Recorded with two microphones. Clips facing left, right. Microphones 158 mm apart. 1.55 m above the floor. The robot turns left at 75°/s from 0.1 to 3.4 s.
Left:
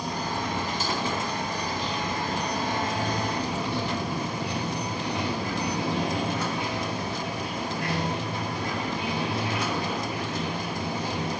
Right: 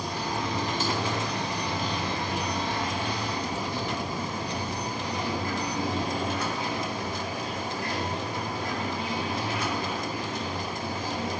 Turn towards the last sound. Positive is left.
turn(degrees=110)